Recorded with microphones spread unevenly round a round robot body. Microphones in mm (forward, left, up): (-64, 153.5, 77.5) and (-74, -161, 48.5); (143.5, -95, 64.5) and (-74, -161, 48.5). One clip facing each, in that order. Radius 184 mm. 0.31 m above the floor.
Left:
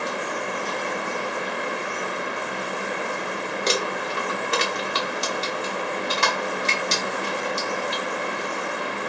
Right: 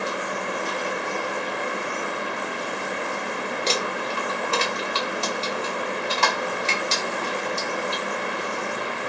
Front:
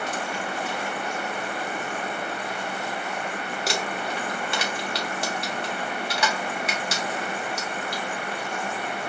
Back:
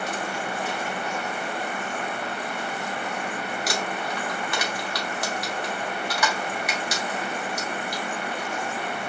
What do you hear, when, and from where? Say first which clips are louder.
3.7 s crumpling: left 3 dB, front 2 dB; 35° left, 1.4 m